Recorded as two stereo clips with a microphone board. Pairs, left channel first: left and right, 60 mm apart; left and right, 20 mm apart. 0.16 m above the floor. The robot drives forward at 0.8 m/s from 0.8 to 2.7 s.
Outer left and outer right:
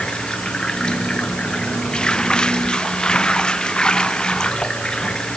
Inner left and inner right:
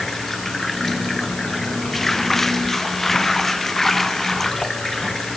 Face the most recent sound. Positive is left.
turn(degrees=15)  # may be behind; listen again after turning